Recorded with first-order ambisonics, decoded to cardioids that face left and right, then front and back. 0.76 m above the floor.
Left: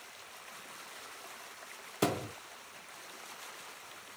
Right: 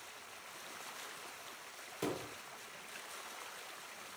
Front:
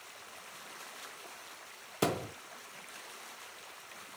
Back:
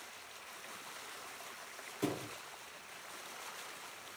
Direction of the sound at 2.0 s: 40° left.